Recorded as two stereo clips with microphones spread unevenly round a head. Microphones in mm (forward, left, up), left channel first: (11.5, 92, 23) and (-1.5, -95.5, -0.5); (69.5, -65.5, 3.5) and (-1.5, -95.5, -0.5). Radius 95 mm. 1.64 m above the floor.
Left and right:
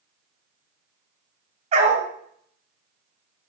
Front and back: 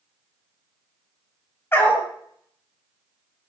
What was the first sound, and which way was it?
A dog barking, 35° right.